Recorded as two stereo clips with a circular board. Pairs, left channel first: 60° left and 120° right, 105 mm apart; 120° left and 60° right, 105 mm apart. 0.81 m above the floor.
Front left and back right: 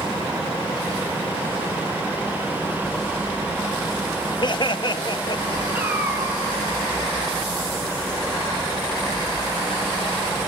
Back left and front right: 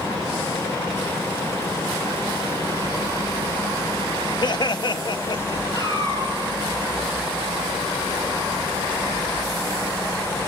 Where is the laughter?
90° left, 1.0 m.